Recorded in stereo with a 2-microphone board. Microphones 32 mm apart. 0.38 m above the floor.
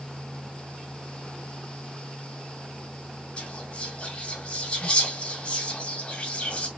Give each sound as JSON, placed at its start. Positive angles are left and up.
{"t": 3.4, "sound": "whispering", "side_deg": 35, "distance_m": 2.5}